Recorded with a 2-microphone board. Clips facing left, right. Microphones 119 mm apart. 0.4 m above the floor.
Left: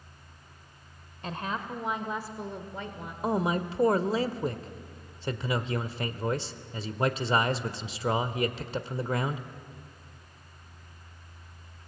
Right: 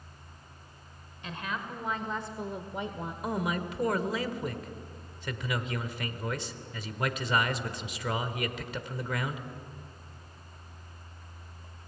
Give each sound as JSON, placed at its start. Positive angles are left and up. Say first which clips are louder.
{"t": 1.2, "sound": "a woman speaking", "louder": "left 3 dB", "side_deg": 45, "distance_m": 1.4}
{"t": 3.2, "sound": "a man speaking", "louder": "left 5 dB", "side_deg": 30, "distance_m": 1.0}